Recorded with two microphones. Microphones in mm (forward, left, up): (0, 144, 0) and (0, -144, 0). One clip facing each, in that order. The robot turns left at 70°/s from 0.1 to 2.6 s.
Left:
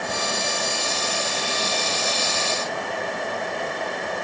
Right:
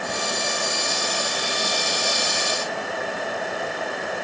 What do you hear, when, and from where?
Only background noise.